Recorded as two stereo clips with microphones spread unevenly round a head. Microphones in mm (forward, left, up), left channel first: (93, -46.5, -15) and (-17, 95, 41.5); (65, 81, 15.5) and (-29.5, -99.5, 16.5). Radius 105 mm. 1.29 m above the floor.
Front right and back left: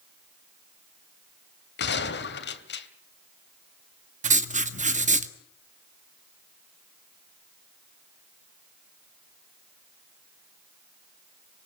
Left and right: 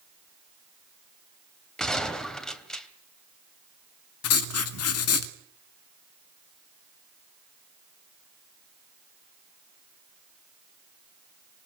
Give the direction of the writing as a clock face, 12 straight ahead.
9 o'clock.